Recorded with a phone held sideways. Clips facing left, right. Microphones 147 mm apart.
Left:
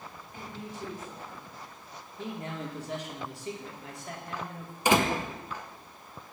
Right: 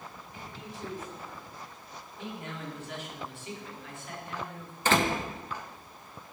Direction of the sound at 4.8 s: 15° left (ahead or behind).